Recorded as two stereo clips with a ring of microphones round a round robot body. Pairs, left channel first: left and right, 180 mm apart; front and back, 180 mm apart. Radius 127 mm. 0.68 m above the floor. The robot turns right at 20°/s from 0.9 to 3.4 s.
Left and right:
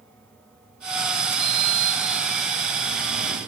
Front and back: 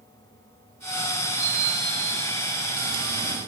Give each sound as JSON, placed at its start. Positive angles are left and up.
{"t": 1.4, "sound": "a sliding door", "azimuth_deg": -115, "distance_m": 9.5}